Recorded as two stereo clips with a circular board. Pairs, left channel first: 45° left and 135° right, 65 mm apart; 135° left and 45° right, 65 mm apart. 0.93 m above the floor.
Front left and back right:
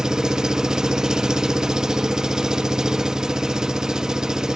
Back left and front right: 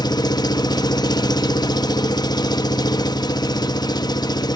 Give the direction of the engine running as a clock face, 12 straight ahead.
7 o'clock.